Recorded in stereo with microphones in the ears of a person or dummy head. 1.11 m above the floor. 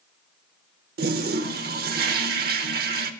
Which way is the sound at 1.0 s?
45° right (ahead or behind).